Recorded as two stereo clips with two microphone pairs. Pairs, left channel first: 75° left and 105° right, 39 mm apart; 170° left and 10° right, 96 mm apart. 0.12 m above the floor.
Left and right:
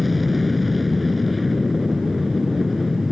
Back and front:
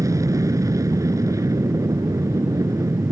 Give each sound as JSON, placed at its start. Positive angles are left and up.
{"t": 0.0, "sound": "an aircraft", "azimuth_deg": -15}